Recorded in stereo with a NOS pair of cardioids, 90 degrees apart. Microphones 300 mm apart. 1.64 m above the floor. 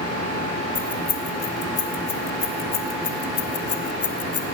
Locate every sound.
0.8 s keys jangling: 40° left, 5 m; by 4.5 s 55° left, 3 m